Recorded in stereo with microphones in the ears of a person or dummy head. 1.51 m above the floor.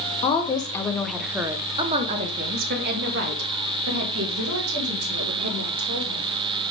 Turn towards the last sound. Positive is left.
turn(degrees=-85)